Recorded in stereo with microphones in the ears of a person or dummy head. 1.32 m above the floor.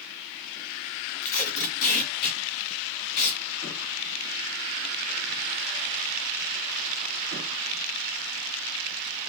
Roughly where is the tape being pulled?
Left.